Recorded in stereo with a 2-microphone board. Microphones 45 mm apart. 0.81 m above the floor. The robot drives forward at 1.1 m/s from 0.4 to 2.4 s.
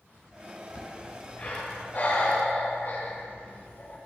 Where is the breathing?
30° left (ahead or behind), 4 m; by 4.0 s 50° left (ahead or behind), 2.5 m.